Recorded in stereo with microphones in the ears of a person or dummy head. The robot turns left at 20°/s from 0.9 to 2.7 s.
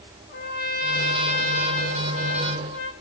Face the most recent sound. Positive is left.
turn(degrees=85)